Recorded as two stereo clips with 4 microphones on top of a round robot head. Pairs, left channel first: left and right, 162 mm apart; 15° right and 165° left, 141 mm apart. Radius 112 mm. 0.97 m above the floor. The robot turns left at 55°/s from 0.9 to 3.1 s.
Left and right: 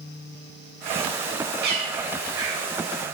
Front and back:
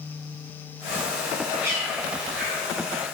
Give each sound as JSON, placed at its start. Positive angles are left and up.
{"t": 1.6, "sound": "a bird", "azimuth_deg": -110, "distance_m": 4.5}